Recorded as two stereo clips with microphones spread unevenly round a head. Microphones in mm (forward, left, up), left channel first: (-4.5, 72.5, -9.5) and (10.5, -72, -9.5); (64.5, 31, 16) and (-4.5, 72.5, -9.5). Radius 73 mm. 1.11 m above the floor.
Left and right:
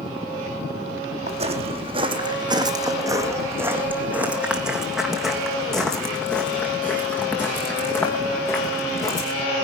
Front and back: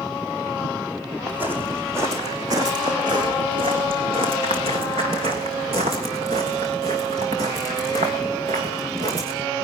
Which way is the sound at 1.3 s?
125° right.